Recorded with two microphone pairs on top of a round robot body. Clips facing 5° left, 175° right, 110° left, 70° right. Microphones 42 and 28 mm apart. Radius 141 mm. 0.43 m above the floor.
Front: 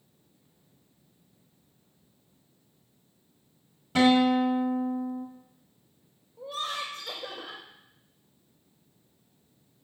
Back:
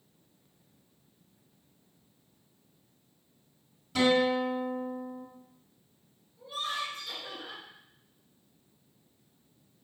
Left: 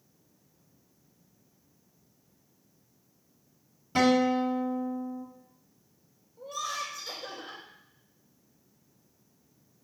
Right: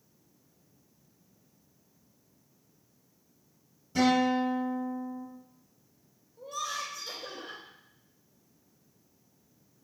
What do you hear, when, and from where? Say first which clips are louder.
4.0 s a guitar: front 4 dB, left 1 dB; 65° left, 1.3 m
6.4 s laughter: front 1 dB, left 1 dB; 30° left, 3 m